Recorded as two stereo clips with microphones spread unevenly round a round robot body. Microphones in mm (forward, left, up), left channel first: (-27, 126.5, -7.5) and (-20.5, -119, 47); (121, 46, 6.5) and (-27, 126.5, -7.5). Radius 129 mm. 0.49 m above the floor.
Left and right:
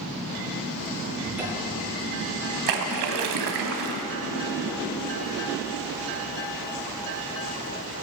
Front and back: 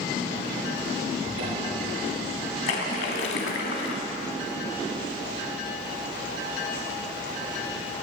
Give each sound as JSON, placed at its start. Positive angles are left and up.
{"t": 1.2, "sound": "a cupboard door", "azimuth_deg": -170, "distance_m": 5.5}
{"t": 2.7, "sound": "a splash", "azimuth_deg": -70, "distance_m": 1.1}